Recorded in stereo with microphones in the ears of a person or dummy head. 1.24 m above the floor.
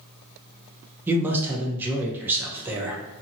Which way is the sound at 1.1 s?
15° right (ahead or behind).